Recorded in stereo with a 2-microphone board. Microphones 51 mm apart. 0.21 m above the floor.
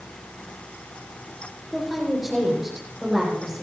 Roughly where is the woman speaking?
Centre.